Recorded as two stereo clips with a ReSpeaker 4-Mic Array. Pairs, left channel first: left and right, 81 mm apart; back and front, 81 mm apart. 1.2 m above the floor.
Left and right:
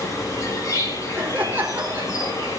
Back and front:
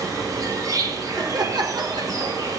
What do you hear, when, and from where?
0.0 s an insect: 40° left, 3 m
1.1 s laughter: 25° right, 4 m